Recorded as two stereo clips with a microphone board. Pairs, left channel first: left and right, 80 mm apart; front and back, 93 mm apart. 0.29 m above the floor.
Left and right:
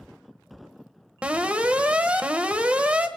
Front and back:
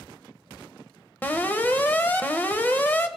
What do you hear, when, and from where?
1.2 s an alarm: 40° right, 1.3 m